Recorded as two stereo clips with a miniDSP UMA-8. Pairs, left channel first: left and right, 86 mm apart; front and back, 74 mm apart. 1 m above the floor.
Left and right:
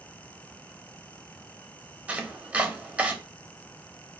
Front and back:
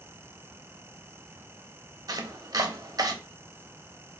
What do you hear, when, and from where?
2.1 s chopping: 160° right, 0.6 m